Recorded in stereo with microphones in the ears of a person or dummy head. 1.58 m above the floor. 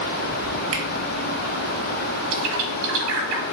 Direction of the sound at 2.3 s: 70° right (ahead or behind).